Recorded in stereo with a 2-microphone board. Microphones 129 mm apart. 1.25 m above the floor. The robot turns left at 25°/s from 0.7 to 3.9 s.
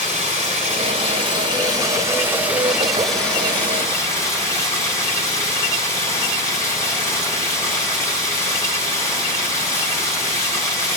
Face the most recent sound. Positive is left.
turn(degrees=155)